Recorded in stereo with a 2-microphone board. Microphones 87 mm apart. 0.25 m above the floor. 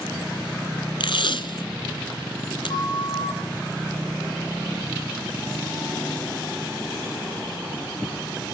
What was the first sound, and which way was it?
Tape being pulled, 70° left (ahead or behind).